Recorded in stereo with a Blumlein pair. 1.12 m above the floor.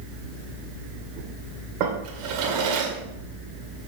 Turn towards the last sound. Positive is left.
turn(degrees=-40)